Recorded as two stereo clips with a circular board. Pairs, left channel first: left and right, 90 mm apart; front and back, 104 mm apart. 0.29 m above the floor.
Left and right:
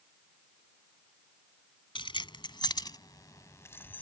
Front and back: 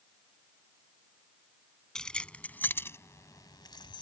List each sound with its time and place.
1.9 s keys jangling: 85° left; by 4.0 s 25° left